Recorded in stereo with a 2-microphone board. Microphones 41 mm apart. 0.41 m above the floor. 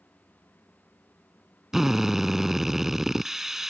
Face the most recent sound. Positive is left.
turn(degrees=-10)  # may be behind; listen again after turning